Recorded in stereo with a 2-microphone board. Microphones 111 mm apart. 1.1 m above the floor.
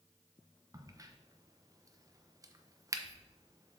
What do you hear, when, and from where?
0.7 s a crack: 30° right (ahead or behind), 0.8 m